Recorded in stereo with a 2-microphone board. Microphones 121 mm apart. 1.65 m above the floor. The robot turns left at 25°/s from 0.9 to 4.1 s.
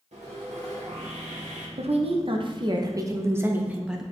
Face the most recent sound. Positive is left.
turn(degrees=180)